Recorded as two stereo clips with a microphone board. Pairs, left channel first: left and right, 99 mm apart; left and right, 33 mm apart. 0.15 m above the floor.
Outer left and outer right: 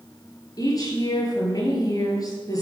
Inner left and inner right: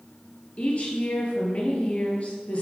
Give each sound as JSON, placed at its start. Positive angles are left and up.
{"t": 0.6, "sound": "a woman speaking", "side_deg": 40, "distance_m": 3.5}